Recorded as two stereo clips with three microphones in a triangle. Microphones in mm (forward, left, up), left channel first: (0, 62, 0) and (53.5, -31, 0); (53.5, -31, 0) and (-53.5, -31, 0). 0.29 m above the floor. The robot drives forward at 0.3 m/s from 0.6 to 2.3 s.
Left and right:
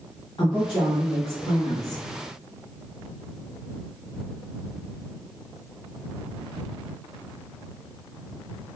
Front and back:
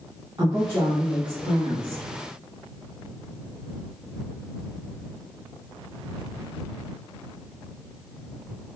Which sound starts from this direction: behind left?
A woman speaking, at 0.4 s.